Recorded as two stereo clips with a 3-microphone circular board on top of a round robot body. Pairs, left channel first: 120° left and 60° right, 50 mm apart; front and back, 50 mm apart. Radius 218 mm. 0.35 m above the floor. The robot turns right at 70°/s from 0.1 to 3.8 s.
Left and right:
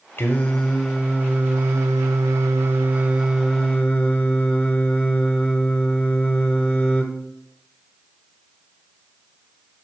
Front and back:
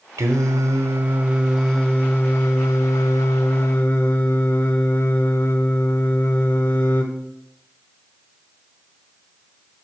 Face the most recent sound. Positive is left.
turn(degrees=60)